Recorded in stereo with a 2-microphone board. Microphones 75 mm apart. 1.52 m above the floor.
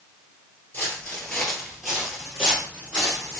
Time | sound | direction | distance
0.7 | footsteps | 20° left (ahead or behind) | 1.6 m